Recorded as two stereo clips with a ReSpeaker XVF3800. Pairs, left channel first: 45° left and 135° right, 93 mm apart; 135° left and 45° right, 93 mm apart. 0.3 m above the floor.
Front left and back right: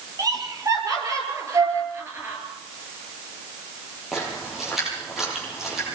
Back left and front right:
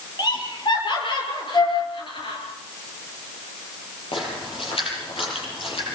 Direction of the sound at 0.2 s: 175° left.